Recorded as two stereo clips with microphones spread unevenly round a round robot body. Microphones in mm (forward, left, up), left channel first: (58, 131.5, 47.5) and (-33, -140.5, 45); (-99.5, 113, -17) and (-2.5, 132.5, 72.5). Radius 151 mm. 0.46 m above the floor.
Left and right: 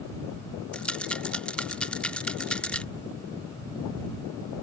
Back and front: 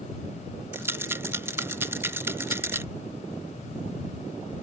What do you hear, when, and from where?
0.7 s a rattle: 155° left